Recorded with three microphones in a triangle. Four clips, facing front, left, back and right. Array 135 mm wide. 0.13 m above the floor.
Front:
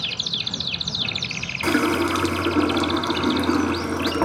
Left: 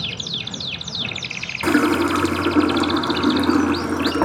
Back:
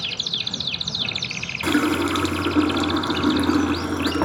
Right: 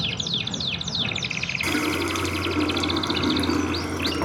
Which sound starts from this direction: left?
A running tap, at 1.6 s.